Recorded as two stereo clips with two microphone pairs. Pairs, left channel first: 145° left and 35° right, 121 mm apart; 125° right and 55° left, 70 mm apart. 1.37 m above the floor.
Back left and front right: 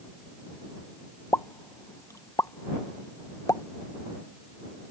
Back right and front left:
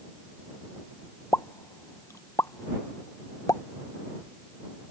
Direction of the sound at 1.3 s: 155° right.